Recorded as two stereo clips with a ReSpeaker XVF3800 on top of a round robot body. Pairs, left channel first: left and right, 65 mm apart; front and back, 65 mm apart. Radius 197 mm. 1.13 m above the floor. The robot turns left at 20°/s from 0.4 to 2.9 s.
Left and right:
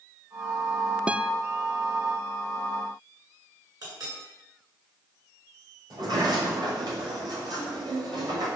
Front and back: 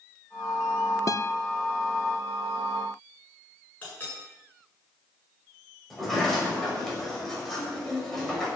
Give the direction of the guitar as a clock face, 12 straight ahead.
1 o'clock.